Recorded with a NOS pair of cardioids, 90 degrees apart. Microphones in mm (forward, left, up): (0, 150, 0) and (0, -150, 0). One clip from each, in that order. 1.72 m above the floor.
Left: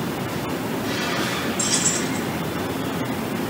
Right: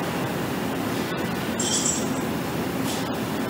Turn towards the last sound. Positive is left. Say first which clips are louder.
# left 1 dB
turn(degrees=30)